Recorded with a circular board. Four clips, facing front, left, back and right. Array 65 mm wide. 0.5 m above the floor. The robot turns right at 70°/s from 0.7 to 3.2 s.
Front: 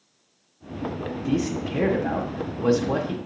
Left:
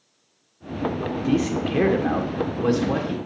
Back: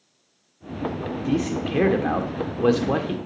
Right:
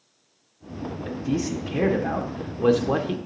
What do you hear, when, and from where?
1.0 s a man speaking: 80° left, 1.3 m; by 3.2 s 125° right, 1.3 m